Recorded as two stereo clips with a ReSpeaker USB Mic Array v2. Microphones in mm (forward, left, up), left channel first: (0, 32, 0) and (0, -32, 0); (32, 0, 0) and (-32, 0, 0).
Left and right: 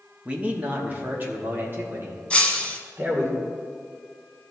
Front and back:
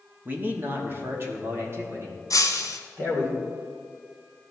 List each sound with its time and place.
0.2 s a man speaking: 140° right, 1.1 m; by 3.3 s 135° right, 2.5 m
2.3 s breaking glass: 15° left, 1.0 m